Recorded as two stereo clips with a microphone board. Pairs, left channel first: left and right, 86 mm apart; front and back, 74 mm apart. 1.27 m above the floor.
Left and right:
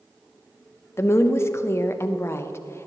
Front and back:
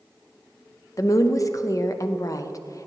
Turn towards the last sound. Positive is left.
turn(degrees=35)